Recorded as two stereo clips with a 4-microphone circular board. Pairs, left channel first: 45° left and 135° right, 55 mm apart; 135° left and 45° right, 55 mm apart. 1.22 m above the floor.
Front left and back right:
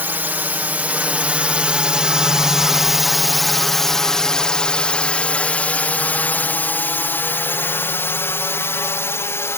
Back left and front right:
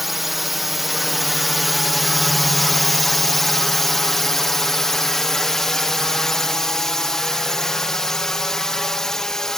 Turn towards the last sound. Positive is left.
turn(degrees=55)